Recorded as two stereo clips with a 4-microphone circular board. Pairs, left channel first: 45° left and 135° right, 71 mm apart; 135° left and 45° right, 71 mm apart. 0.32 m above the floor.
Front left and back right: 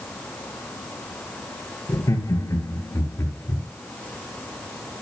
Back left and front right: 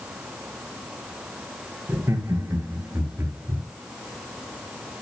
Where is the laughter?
10° left, 4.5 m; by 3.6 s 5° left, 5.5 m.